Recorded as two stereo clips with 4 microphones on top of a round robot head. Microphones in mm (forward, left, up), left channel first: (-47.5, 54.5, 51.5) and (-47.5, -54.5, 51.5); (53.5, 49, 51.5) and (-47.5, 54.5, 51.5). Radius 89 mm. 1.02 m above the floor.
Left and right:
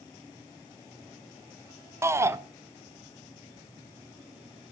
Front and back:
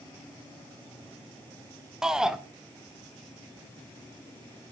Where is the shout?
110° right, 0.7 m.